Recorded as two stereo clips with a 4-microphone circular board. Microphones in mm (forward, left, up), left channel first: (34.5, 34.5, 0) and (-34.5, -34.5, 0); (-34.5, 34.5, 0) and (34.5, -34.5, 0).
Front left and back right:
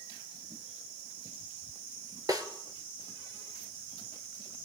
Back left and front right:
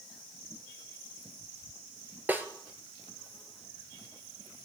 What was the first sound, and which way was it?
A snare drum, 105° right.